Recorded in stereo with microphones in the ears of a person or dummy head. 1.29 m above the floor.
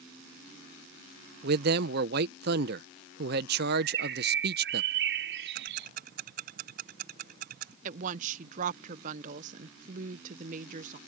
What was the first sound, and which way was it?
A man speaking, 55° right (ahead or behind).